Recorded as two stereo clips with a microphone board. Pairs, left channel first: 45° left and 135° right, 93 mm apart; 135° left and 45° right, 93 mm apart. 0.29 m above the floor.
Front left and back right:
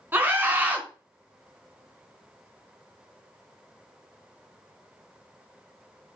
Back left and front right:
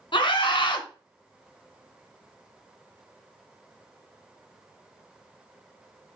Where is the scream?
160° left, 2.5 m.